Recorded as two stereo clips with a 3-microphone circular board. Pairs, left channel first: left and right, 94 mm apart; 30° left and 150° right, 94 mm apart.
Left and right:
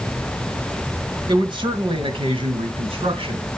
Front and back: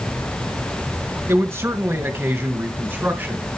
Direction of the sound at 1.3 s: 95° right.